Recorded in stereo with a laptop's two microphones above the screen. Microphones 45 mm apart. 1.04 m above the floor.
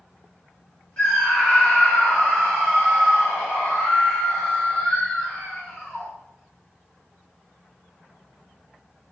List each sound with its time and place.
1.0 s a scream: 30° left (ahead or behind), 0.6 m